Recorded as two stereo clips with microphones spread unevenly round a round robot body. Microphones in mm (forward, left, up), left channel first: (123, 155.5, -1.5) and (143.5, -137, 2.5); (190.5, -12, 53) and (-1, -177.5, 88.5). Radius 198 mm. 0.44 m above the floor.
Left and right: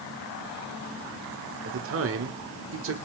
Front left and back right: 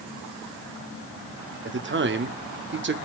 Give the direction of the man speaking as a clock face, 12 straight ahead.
4 o'clock.